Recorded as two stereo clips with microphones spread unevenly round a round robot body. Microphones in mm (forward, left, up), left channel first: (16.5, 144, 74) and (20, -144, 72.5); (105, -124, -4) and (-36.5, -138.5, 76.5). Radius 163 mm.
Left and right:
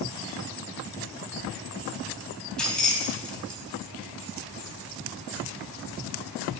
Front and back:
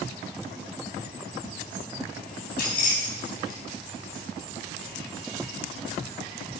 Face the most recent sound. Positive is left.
turn(degrees=5)